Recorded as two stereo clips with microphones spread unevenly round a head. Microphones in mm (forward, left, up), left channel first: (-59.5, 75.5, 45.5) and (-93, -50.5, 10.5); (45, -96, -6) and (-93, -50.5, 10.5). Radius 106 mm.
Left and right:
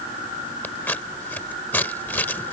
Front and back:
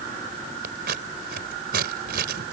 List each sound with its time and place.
0.6 s scissors: 145° left